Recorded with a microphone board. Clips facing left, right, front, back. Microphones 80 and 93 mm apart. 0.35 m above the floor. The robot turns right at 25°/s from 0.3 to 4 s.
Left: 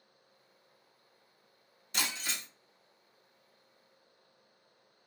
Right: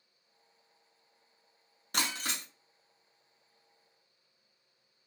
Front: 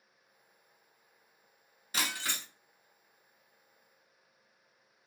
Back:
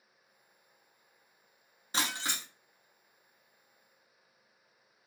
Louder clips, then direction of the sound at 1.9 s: Right 2 dB, back 2 dB; 120° right.